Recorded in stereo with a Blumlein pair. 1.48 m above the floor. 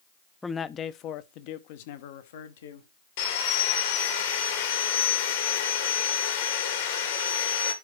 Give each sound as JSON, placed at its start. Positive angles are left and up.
{"t": 0.4, "sound": "a man speaking", "azimuth_deg": 10, "distance_m": 0.7}
{"t": 3.2, "sound": "sawing", "azimuth_deg": 55, "distance_m": 2.5}